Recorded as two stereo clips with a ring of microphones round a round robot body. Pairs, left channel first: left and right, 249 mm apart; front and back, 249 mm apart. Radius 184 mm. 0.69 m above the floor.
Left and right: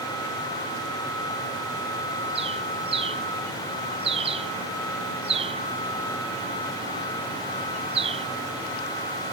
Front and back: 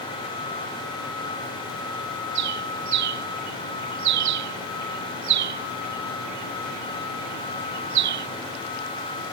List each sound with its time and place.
2.4 s a bird: 165° right